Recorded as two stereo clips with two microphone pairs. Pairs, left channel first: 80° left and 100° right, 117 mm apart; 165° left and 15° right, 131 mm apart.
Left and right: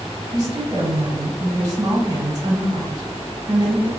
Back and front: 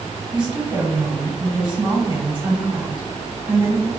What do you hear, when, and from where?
0.3 s a woman speaking: 55° right, 2.0 m